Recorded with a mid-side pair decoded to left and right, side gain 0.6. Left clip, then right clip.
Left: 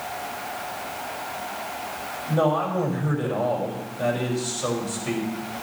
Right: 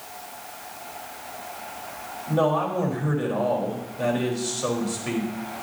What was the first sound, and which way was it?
A man speaking, 15° right.